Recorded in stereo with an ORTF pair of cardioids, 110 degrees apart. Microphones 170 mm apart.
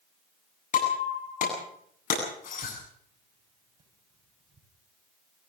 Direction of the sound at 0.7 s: 50° left.